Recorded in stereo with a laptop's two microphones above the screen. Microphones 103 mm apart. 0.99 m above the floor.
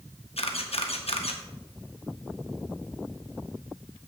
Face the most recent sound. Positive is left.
turn(degrees=75)  # may be behind; listen again after turning